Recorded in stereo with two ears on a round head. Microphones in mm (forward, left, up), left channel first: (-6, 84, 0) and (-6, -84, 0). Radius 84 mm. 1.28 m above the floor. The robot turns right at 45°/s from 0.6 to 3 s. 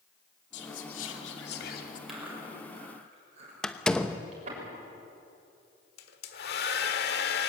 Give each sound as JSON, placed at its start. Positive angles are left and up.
{"t": 0.5, "sound": "whispering", "azimuth_deg": 70, "distance_m": 2.5}
{"t": 2.1, "sound": "chewing", "side_deg": 0, "distance_m": 7.0}
{"t": 3.6, "sound": "a door slam", "side_deg": 5, "distance_m": 0.9}
{"t": 6.0, "sound": "a hair dryer", "side_deg": 60, "distance_m": 1.6}